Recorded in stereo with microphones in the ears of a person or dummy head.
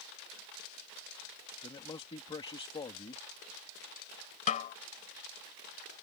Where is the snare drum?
45° left (ahead or behind).